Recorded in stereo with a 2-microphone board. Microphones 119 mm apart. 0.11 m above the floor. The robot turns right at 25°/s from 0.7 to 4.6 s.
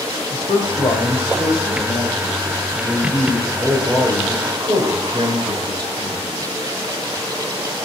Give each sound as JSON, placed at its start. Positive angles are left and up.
{"t": 0.3, "sound": "a man speaking", "azimuth_deg": 130, "distance_m": 2.5}